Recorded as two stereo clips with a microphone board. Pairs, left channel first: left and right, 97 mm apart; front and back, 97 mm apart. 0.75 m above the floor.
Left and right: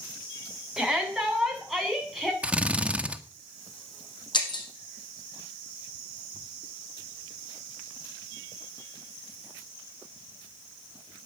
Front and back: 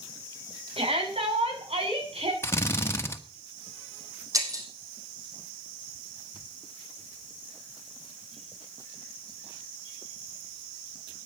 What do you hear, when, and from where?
0.8 s a shout: 175° right, 6.5 m; by 2.3 s straight behind, 7 m
2.4 s a drill: 25° right, 1.2 m
4.3 s breaking glass: 125° left, 4.5 m